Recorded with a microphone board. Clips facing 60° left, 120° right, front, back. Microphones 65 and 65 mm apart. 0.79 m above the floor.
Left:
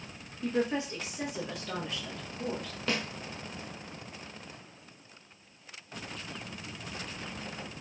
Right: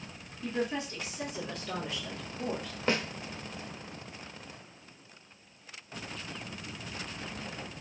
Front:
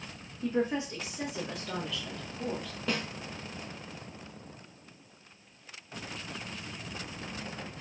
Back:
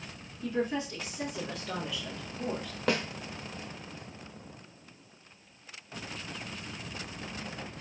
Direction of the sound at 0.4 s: 30° left.